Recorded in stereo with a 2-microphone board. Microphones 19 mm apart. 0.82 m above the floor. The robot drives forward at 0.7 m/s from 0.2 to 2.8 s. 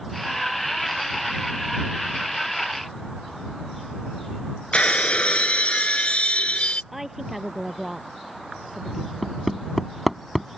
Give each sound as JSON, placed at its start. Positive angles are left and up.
{"t": 4.7, "sound": "breaking glass", "side_deg": 80}
{"t": 6.9, "sound": "a woman speaking", "side_deg": -15}
{"t": 9.2, "sound": "hammering", "side_deg": 0}